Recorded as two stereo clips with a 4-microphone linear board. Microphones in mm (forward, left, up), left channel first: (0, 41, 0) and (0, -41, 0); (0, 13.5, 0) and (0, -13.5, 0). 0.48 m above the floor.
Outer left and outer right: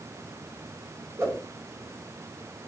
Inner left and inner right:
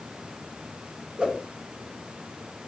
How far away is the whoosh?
About 1.5 m.